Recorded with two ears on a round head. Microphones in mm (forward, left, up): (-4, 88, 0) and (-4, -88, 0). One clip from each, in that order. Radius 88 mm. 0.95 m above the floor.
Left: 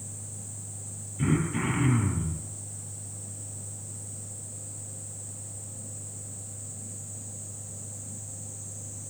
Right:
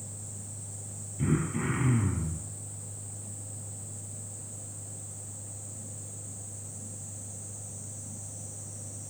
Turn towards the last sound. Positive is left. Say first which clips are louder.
# left 3 dB
turn(degrees=30)  # may be behind; listen again after turning